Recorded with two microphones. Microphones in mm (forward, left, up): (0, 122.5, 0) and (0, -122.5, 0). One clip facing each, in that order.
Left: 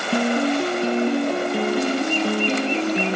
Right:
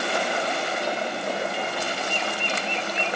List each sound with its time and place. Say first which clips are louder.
0.1 s a piano: left 14 dB; 65° left (ahead or behind)